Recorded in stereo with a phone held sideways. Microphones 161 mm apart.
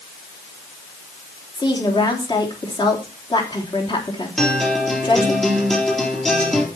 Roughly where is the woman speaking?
Left.